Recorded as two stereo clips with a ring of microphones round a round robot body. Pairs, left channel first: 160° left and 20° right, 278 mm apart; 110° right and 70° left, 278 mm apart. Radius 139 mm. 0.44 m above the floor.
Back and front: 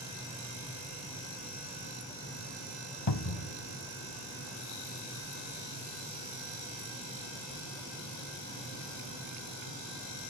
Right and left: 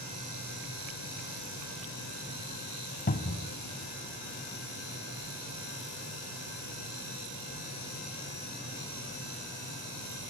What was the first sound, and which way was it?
A cupboard door, 175° right.